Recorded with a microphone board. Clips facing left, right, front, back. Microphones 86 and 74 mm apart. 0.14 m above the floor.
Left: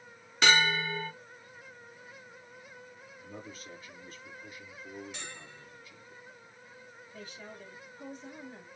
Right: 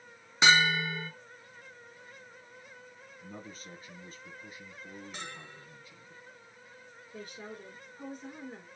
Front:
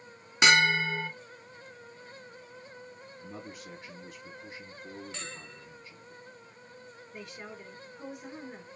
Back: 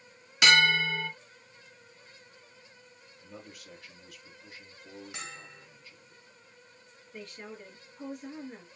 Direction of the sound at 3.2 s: 55° right.